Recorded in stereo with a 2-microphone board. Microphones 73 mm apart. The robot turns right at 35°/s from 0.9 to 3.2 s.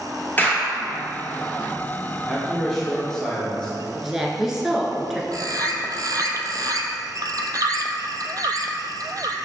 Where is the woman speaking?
5° right (ahead or behind), 1.1 m.